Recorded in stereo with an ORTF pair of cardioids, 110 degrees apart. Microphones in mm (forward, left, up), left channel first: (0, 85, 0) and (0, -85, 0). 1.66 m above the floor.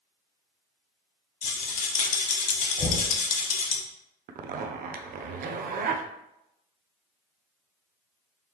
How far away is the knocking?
About 1.3 m.